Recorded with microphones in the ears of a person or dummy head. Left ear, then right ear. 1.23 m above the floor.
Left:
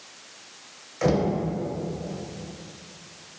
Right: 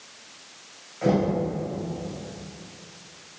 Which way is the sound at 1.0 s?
70° left (ahead or behind).